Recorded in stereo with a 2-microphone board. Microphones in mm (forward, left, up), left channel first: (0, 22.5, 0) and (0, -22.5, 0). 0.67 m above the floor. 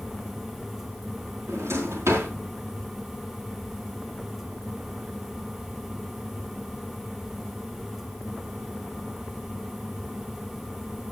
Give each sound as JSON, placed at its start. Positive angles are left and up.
{"t": 1.5, "sound": "a drawer", "side_deg": -75, "distance_m": 3.5}